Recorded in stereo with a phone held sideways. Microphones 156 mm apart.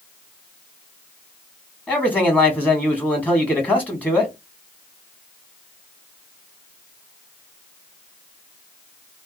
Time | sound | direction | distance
1.9 | a man speaking | 10° left (ahead or behind) | 1.0 m